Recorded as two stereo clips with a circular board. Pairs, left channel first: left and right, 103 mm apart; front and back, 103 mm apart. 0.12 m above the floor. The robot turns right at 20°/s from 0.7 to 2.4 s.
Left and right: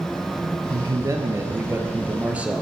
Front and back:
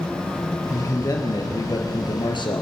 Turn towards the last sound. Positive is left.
turn(degrees=-15)